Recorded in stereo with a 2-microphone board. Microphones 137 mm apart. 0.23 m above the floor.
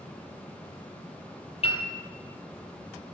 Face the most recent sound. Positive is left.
turn(degrees=50)  # may be behind; listen again after turning